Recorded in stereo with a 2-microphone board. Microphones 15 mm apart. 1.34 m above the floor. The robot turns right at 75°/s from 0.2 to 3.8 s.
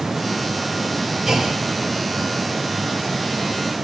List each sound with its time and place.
1.3 s a clunk: 30° right (ahead or behind), 5.5 m; by 1.6 s 60° right (ahead or behind), 5.5 m